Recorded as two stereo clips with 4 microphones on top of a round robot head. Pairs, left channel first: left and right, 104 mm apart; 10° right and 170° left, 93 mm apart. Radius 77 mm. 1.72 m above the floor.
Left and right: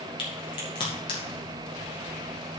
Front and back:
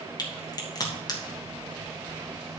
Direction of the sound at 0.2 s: 40° left.